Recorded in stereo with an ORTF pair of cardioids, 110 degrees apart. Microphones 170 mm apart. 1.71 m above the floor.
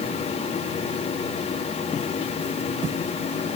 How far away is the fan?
About 2.5 m.